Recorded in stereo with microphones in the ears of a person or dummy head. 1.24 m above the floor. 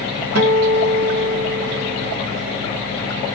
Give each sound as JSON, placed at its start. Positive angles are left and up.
{"t": 0.3, "sound": "a guitar", "side_deg": -75, "distance_m": 1.5}